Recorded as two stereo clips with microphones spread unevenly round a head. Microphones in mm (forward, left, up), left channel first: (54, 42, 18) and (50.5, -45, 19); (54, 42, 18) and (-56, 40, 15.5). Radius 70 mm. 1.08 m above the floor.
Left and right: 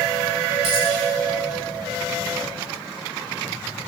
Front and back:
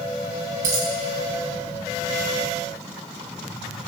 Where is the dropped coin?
140° right, 3 m.